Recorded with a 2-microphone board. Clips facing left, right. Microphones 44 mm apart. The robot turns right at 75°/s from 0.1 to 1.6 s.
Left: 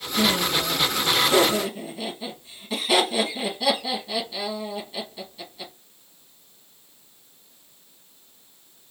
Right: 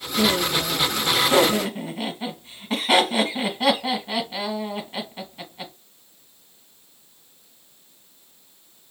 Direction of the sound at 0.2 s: 20° left (ahead or behind).